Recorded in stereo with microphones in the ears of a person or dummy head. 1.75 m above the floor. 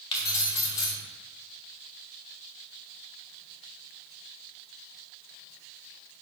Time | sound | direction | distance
0.1 | keys jangling | 30° left (ahead or behind) | 1.0 m